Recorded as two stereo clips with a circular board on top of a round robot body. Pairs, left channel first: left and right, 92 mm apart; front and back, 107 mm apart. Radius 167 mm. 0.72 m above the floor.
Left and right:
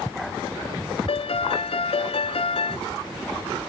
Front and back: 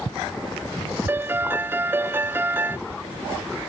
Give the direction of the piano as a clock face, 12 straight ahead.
8 o'clock.